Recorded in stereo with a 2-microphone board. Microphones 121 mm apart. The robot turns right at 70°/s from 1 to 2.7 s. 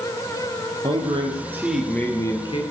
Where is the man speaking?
55° right, 3.5 m; by 2.6 s 55° left, 3.5 m.